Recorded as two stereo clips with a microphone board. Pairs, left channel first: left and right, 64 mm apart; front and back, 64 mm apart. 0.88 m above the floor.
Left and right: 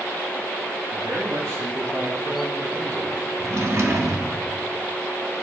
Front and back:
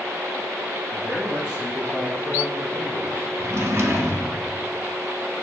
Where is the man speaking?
90° right, 1.3 m; by 3.3 s 130° right, 3.5 m.